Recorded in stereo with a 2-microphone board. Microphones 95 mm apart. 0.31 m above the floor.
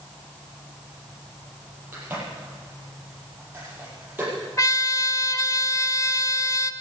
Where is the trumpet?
35° left (ahead or behind), 0.5 m.